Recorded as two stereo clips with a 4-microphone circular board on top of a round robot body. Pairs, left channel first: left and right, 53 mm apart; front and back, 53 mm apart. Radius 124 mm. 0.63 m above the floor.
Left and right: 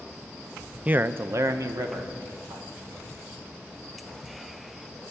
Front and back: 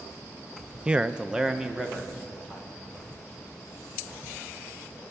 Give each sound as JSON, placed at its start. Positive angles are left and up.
{"t": 0.8, "sound": "a man speaking", "azimuth_deg": -125, "distance_m": 0.6}